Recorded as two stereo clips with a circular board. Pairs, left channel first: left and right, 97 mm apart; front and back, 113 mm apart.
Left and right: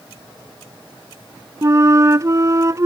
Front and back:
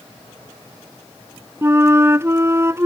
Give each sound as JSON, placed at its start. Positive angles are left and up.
{"t": 1.6, "sound": "a flute", "azimuth_deg": -125}